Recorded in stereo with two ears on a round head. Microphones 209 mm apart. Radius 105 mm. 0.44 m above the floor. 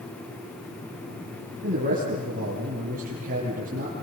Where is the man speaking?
35° right (ahead or behind), 7 m.